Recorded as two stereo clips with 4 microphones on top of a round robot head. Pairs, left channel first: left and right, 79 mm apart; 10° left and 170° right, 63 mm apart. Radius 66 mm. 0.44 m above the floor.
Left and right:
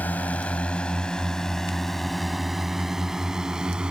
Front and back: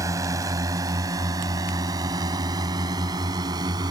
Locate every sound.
0.0 s a drone: 160° left; by 3.9 s 170° right